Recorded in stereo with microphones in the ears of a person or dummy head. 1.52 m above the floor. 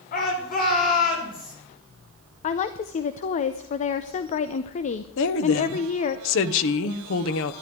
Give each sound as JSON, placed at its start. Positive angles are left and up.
{"t": 0.1, "sound": "a shout", "side_deg": 50, "distance_m": 5.0}
{"t": 2.4, "sound": "a woman speaking", "side_deg": 35, "distance_m": 0.7}
{"t": 5.2, "sound": "a woman speaking", "side_deg": 75, "distance_m": 1.2}